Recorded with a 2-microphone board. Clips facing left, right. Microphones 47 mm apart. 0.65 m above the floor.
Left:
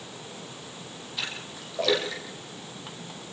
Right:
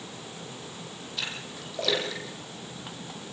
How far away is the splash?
About 9 m.